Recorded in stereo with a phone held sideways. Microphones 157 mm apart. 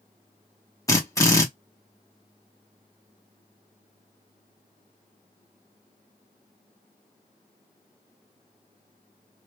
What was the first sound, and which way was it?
A drill, 20° left (ahead or behind).